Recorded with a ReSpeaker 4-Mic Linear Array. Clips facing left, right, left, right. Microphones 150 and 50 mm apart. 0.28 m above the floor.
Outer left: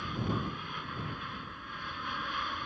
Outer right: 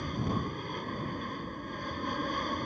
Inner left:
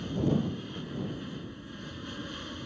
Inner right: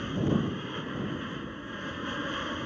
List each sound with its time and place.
0.0 s an aircraft: 40° right (ahead or behind)